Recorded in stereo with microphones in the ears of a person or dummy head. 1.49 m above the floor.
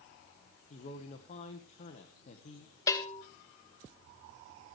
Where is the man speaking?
40° left (ahead or behind), 1.5 m.